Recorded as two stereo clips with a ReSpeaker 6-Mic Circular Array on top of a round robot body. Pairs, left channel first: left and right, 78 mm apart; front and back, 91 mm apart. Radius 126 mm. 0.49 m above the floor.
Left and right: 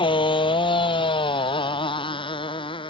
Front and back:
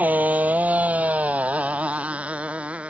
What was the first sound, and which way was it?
A motorcycle, 105° left.